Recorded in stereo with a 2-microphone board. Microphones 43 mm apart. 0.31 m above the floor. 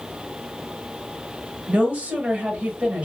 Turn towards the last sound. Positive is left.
turn(degrees=-30)  # may be behind; listen again after turning